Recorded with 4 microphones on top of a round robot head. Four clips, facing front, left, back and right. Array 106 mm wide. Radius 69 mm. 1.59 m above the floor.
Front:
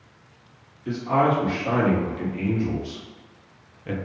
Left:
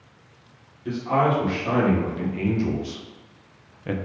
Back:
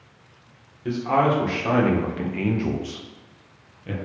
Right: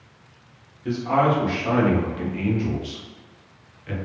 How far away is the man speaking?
About 1.6 m.